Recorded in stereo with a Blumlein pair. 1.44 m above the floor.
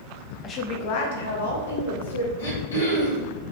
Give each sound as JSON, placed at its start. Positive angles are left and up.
{"t": 0.4, "sound": "a woman speaking", "azimuth_deg": 25, "distance_m": 0.6}
{"t": 2.4, "sound": "throat clearing", "azimuth_deg": 70, "distance_m": 1.8}